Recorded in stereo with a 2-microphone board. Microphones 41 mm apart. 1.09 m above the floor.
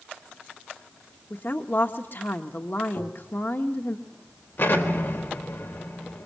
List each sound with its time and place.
1.3 s a woman speaking: 60° left (ahead or behind), 1.5 m
3.0 s tapping: 75° left (ahead or behind), 1.6 m
4.6 s an explosion: 60° left (ahead or behind), 4 m